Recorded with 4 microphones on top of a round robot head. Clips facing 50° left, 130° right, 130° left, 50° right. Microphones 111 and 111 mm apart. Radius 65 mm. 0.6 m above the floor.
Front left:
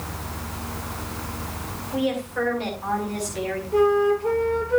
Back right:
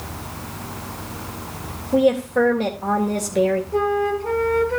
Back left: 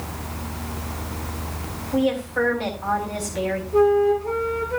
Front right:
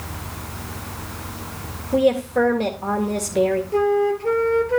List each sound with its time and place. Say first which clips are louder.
1.9 s a woman speaking: back right 8 dB, front right 4 dB; 90° right, 3 m
3.7 s a flute: front left 2 dB, back left 6 dB; 35° right, 4 m